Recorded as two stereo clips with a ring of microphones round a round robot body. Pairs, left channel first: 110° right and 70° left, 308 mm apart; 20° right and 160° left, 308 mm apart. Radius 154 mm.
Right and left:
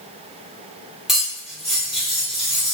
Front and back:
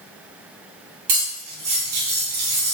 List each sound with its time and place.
1.1 s cutlery clinking: 155° left, 1.0 m